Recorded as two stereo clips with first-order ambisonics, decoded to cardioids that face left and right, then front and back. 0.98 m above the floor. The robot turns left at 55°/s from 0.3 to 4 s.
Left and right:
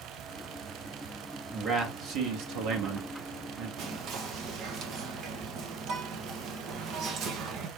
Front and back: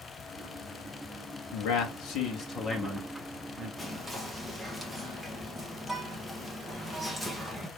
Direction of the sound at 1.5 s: 10° right.